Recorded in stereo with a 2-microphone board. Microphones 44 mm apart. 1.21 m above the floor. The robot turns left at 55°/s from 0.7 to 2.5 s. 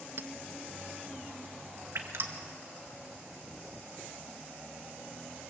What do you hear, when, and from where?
0.2 s a clink: 65° right (ahead or behind), 0.7 m
1.9 s dripping: 75° right (ahead or behind), 1.9 m; by 2.3 s 60° right (ahead or behind), 1.9 m